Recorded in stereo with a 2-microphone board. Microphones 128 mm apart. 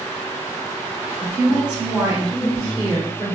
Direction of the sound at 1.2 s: 10° right (ahead or behind).